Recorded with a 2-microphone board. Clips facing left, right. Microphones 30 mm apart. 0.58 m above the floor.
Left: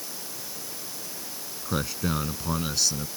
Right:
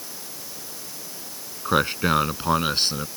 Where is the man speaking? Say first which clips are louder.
Right 8 dB; 45° right (ahead or behind); by 3.1 s 40° right (ahead or behind).